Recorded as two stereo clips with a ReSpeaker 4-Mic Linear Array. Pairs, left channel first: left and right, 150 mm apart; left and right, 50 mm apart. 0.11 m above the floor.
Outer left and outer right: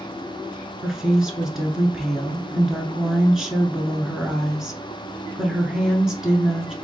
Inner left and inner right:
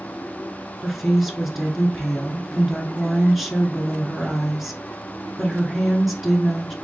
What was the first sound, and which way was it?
A woman speaking, 5° right (ahead or behind).